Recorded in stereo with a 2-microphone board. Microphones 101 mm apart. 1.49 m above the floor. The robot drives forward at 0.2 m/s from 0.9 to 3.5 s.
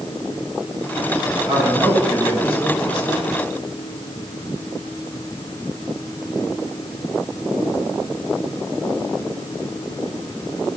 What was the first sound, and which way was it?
A man speaking, 30° right (ahead or behind).